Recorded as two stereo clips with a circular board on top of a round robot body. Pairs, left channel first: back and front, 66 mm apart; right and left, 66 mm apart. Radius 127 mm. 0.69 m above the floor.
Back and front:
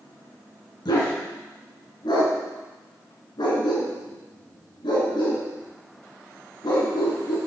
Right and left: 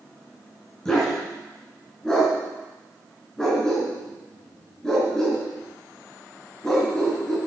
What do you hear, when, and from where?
0.8 s a dog barking: 170° right, 3.5 m